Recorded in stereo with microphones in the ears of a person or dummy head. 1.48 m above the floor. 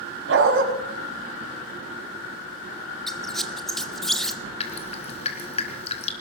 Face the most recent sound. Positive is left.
turn(degrees=35)  # may be behind; listen again after turning